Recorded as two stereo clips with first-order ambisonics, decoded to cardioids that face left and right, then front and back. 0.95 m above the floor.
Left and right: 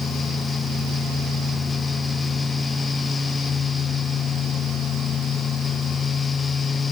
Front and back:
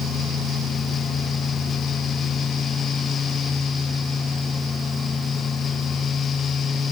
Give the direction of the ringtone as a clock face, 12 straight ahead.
No ringtone in this recording.